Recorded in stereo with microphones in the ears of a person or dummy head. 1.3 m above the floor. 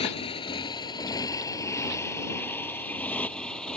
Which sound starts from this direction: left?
A motorcycle, at 0.0 s.